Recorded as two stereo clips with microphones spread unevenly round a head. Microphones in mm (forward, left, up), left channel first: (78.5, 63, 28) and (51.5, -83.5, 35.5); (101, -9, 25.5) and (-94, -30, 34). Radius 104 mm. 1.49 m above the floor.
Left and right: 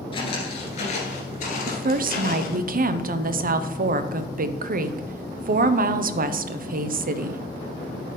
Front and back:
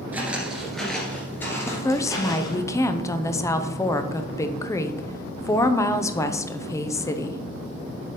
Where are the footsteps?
115° left, 1.6 m; by 2.6 s 75° left, 2.5 m.